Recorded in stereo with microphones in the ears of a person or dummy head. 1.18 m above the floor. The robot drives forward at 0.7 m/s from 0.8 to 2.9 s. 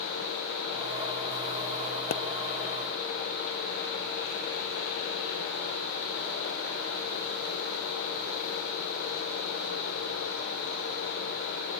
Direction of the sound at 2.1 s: 55° left (ahead or behind).